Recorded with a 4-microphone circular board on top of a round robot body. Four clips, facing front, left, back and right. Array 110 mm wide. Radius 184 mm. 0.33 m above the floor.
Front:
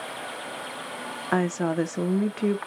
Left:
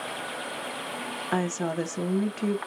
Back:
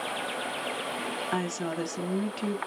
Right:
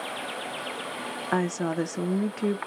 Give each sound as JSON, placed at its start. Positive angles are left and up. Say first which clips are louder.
{"t": 1.3, "sound": "a woman speaking", "louder": "right 1 dB, front 9 dB", "azimuth_deg": -20, "distance_m": 0.9}